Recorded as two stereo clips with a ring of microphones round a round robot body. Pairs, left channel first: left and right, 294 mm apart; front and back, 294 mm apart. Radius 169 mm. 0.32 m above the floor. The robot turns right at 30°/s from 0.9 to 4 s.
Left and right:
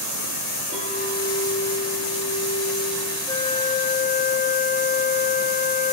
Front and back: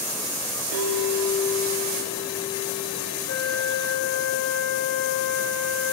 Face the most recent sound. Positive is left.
turn(degrees=35)